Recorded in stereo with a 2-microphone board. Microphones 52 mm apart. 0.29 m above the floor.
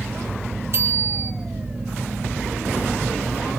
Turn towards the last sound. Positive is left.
turn(degrees=-55)  # may be behind; listen again after turning